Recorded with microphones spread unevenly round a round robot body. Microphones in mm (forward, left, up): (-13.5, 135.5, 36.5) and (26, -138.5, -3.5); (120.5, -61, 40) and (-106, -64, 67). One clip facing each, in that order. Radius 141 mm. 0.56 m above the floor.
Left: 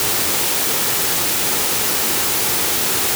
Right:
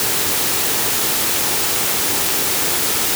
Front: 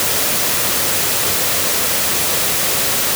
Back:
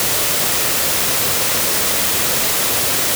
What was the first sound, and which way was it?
Only background noise.